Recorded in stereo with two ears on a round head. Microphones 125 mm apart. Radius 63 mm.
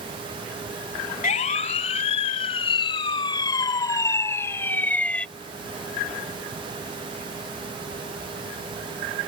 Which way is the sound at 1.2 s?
55° left (ahead or behind).